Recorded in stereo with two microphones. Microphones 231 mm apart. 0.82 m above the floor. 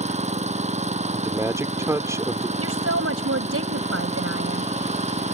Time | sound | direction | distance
0.0 | an engine running | 30° right (ahead or behind) | ?
1.1 | a man speaking | 15° right (ahead or behind) | ?
2.6 | a woman speaking | 80° right | ?